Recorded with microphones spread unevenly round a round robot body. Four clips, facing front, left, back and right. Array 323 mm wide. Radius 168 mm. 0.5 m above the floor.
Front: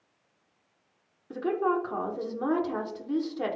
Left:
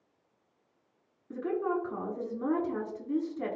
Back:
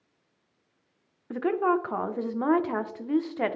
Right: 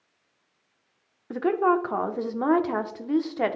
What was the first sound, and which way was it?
A woman speaking, 105° right.